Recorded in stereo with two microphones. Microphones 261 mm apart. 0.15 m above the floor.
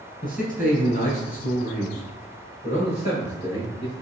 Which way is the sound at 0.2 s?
35° left (ahead or behind).